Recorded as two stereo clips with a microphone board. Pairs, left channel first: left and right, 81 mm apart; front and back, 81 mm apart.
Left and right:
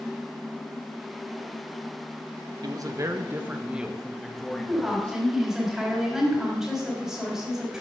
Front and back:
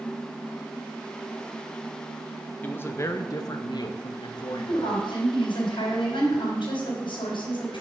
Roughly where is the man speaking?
Ahead right.